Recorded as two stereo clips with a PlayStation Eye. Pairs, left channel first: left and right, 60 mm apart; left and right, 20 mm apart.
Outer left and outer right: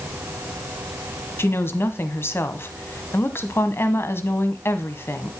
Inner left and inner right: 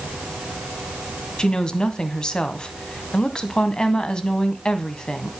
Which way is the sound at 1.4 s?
40° left (ahead or behind).